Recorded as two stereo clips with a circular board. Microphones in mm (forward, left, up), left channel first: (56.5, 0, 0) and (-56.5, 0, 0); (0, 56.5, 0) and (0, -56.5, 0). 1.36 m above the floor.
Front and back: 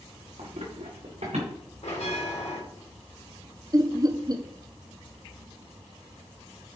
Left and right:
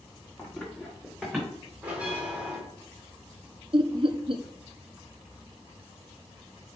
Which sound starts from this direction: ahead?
A bell, at 1.8 s.